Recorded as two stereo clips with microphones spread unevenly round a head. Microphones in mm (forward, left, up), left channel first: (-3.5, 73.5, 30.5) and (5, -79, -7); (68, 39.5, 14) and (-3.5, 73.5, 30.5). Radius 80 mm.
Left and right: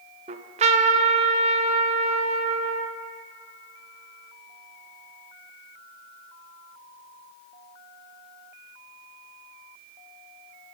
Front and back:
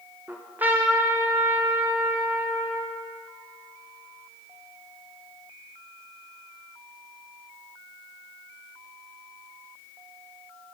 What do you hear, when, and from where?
0.3 s a trumpet: 140° right, 0.5 m